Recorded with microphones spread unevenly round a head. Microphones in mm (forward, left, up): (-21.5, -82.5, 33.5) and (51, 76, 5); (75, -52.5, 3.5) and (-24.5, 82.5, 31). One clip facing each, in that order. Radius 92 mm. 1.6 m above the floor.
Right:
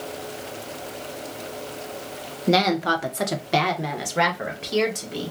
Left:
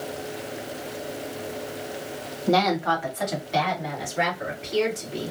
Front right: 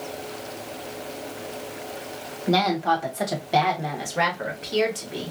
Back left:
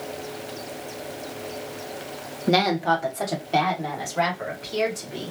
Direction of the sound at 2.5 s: 175° right.